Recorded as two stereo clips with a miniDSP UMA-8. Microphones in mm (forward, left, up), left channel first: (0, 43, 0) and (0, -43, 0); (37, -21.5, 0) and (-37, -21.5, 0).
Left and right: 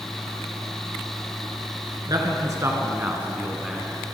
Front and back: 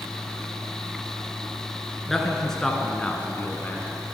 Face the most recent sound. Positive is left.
turn(degrees=25)